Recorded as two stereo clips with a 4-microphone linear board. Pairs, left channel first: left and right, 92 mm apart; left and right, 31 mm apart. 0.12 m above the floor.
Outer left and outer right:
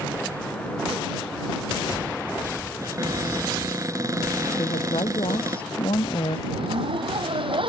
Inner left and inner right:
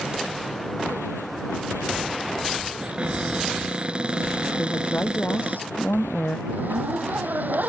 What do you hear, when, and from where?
2.8 s a cupboard door: 40° right (ahead or behind)
4.6 s a woman speaking: 75° left (ahead or behind)
6.5 s a zipper: 75° right (ahead or behind)